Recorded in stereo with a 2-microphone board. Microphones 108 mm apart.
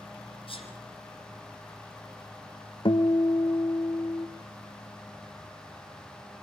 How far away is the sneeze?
About 5 m.